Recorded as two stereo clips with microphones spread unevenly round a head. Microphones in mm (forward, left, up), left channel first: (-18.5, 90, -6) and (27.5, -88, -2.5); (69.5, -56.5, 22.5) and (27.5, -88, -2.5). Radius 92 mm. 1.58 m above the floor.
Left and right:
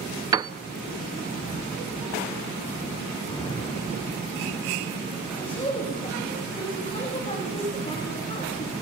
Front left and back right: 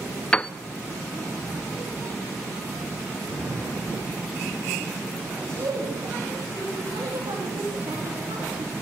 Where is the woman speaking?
170° left, 3 m.